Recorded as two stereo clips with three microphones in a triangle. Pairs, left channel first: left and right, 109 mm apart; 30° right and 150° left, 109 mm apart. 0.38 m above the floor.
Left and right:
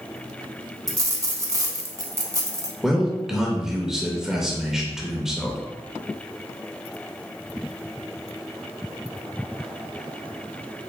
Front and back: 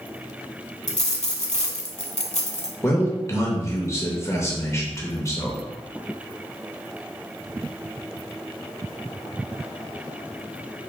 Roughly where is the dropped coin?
Ahead right.